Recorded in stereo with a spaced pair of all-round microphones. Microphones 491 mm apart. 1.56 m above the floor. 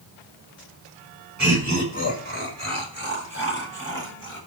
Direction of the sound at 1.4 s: 35° right (ahead or behind).